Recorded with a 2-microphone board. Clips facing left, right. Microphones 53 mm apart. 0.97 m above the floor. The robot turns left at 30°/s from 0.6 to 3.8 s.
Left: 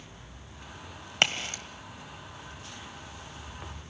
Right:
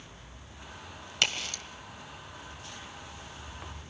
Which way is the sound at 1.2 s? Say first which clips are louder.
Left 3 dB; 45° left (ahead or behind).